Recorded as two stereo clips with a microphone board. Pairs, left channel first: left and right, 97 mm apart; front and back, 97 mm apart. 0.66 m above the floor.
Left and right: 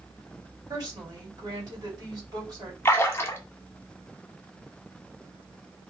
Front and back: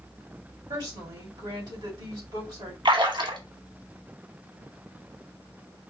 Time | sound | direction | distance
0.7 | a woman speaking | 140° right | 3.5 m
2.9 | a splash | 155° left | 1.1 m